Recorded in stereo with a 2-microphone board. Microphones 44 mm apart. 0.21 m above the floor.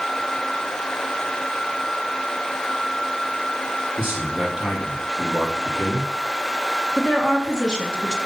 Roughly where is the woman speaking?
Centre.